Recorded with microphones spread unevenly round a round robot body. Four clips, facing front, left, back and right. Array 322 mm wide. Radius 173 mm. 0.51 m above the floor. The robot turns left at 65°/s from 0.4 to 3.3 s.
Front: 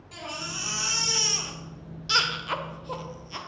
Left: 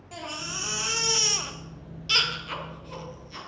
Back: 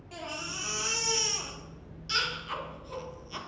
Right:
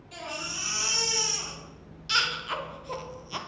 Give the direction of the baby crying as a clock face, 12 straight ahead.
8 o'clock.